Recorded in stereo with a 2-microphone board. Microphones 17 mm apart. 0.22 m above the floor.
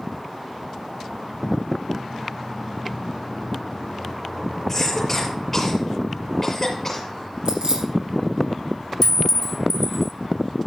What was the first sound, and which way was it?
A cough, 15° left (ahead or behind).